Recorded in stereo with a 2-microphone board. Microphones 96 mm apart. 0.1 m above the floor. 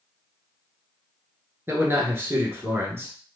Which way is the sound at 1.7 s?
25° right (ahead or behind).